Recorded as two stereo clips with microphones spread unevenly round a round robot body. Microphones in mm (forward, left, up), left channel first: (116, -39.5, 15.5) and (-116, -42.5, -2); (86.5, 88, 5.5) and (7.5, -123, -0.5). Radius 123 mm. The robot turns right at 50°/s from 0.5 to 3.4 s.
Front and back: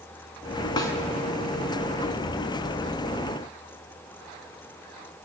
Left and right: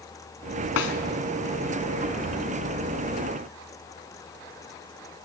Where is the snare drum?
70° left, 1.8 m; by 0.9 s 80° left, 1.8 m.